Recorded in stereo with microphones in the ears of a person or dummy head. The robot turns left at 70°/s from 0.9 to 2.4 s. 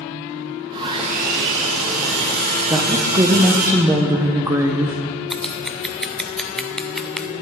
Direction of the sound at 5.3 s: 5° left (ahead or behind).